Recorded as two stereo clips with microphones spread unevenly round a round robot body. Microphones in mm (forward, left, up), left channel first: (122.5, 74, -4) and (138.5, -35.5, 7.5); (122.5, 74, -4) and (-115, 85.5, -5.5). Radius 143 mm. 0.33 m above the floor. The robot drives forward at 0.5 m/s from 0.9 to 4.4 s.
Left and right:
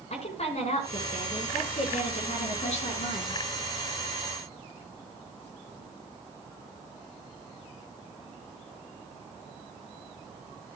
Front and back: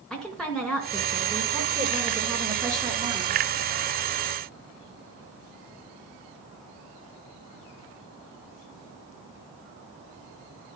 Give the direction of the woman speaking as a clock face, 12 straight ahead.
9 o'clock.